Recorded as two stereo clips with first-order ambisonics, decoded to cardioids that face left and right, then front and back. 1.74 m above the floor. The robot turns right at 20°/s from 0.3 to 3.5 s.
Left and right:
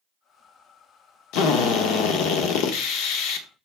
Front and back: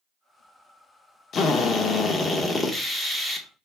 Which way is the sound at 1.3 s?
65° left.